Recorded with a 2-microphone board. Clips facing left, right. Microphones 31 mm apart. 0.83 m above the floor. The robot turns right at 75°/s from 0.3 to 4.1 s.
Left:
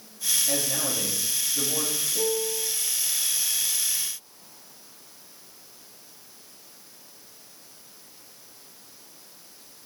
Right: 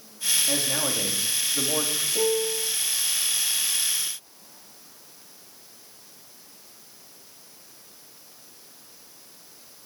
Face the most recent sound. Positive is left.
turn(degrees=105)